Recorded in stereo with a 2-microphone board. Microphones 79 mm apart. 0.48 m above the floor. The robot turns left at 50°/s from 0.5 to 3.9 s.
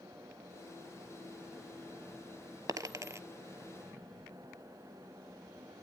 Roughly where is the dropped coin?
Right.